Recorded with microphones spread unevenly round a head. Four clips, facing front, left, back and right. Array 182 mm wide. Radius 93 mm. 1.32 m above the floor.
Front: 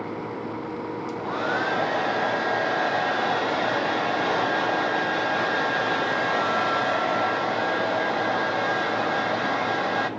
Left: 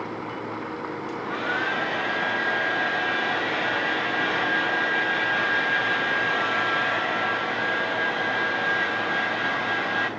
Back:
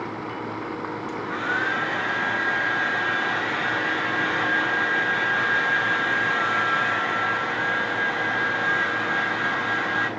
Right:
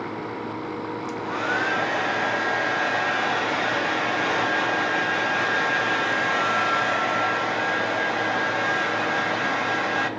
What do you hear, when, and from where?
1.1 s a hair dryer: 20° right, 0.7 m